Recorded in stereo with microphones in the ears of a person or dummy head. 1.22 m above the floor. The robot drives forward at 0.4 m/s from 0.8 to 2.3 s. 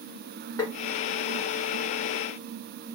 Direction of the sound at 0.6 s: 20° left (ahead or behind).